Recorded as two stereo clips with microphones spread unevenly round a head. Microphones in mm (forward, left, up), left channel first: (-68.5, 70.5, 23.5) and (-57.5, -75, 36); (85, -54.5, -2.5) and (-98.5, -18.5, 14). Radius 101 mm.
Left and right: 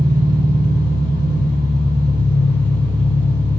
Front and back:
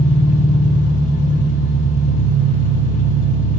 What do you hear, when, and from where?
0.0 s an engine running: 25° right, 3.5 m